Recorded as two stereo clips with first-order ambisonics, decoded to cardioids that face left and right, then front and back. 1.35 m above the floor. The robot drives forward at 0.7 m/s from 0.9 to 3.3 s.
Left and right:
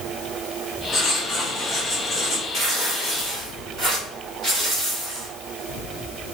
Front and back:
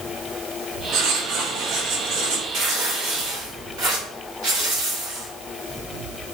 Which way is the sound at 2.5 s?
150° right.